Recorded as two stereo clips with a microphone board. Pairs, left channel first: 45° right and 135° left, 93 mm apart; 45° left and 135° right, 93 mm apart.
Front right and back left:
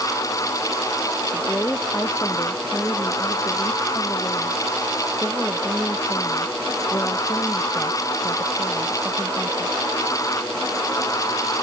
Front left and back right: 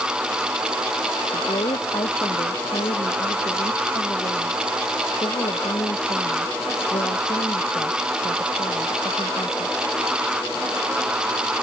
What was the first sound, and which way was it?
A woman speaking, 20° left.